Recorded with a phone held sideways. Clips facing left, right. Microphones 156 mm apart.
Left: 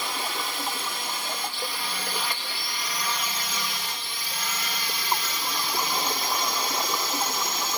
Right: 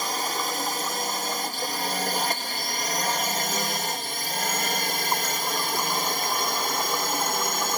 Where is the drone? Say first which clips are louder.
Right 3 dB; 40° right (ahead or behind); by 7.8 s 50° right (ahead or behind).